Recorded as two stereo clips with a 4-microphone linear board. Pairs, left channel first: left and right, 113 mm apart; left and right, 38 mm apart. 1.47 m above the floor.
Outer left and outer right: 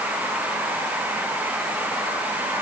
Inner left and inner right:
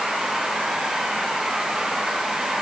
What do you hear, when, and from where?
Only background noise.